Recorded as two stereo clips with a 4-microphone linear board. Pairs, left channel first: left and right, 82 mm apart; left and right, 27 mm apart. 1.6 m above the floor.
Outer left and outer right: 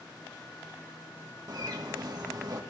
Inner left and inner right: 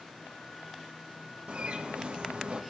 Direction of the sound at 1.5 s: 50° right (ahead or behind).